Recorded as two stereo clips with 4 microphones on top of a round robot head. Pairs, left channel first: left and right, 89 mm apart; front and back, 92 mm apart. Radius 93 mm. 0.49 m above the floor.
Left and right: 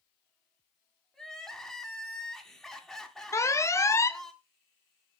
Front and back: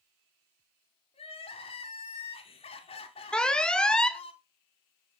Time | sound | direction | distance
1.1 | crying | 5° left | 2 m
3.3 | an alarm | 75° left | 1.0 m